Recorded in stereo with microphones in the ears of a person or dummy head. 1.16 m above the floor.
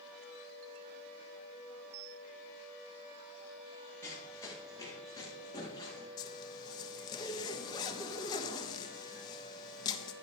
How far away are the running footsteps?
About 6.5 m.